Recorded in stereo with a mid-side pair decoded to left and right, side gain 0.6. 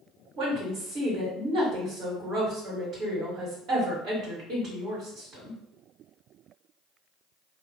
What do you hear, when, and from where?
0.4 s a woman speaking: 55° right, 1.9 m